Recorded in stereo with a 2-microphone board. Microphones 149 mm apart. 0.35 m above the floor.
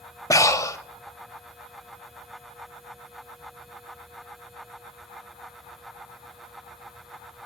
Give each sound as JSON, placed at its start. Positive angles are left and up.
{"t": 0.3, "sound": "breathing", "side_deg": 20, "distance_m": 0.7}